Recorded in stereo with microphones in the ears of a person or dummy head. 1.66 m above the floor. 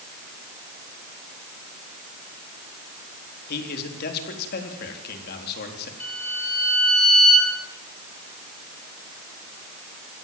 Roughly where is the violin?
Centre.